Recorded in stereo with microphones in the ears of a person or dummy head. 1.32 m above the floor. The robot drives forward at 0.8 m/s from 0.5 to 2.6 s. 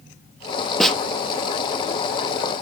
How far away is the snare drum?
About 1.2 m.